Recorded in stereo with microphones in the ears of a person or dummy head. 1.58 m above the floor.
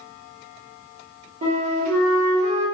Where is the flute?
40° right (ahead or behind), 1.8 m.